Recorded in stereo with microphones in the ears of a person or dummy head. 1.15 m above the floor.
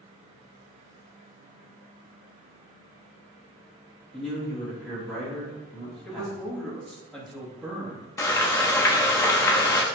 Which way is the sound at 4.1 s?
5° left (ahead or behind).